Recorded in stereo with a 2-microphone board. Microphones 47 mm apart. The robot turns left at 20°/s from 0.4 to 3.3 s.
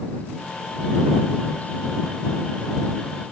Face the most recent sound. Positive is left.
No sound to turn to.